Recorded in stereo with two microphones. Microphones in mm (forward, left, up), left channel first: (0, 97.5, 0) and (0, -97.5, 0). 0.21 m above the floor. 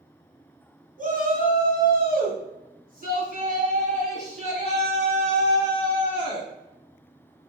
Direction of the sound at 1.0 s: 45° right (ahead or behind).